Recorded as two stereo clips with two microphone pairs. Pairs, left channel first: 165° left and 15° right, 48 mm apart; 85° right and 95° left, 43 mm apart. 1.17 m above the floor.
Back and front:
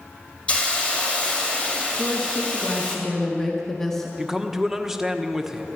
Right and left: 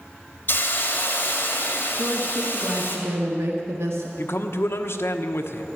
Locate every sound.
0.5 s a hiss: 130° right, 2.5 m
2.0 s a woman speaking: 85° left, 1.6 m
4.2 s a man speaking: 95° right, 1.1 m